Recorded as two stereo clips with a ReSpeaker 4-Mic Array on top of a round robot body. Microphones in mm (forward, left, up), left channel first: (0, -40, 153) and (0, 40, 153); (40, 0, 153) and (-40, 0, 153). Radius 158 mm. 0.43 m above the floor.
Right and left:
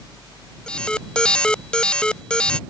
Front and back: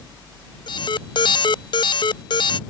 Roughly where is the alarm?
Ahead.